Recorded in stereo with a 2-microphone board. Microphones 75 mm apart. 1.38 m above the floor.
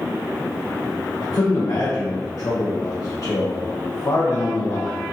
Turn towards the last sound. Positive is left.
turn(degrees=55)  # may be behind; listen again after turning